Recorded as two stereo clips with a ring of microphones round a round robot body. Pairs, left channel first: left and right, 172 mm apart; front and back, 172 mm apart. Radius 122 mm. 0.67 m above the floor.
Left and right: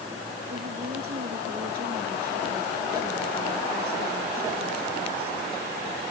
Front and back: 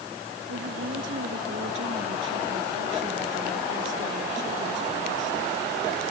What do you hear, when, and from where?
0.5 s a woman speaking: 140° right